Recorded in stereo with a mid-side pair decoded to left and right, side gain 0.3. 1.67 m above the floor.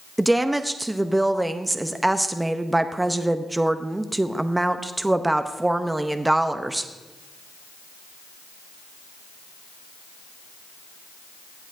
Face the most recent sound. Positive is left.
turn(degrees=-20)